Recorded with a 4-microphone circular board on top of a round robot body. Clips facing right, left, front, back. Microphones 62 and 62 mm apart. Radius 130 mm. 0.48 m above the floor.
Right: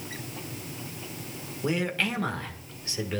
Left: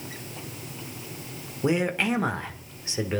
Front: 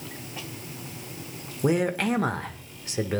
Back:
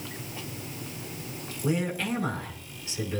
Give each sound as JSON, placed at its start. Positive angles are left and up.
{"t": 1.6, "sound": "a man speaking", "azimuth_deg": 25, "distance_m": 1.5}